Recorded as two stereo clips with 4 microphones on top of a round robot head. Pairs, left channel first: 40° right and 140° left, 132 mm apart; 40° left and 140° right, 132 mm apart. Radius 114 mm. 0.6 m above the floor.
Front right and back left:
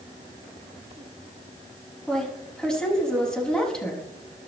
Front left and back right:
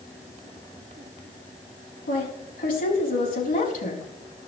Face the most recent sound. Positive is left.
turn(degrees=40)